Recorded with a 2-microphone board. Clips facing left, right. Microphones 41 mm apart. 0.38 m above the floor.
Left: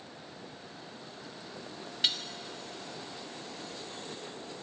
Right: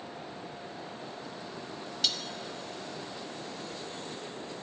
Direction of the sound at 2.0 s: 25° left (ahead or behind).